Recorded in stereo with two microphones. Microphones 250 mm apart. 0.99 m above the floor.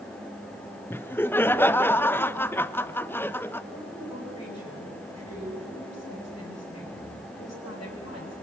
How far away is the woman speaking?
About 9.5 m.